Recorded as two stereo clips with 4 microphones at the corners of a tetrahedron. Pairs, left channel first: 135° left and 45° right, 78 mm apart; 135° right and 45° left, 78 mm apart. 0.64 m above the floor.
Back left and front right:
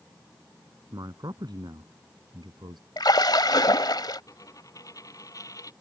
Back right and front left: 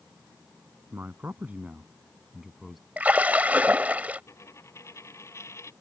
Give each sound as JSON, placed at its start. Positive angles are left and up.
{"t": 0.9, "sound": "a man speaking", "azimuth_deg": -15}
{"t": 3.0, "sound": "a splash", "azimuth_deg": 115}
{"t": 4.3, "sound": "a dropped coin", "azimuth_deg": 175}